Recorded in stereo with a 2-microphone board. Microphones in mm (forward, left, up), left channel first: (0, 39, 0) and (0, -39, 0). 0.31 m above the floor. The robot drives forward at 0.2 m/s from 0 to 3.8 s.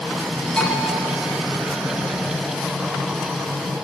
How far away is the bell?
About 4.5 m.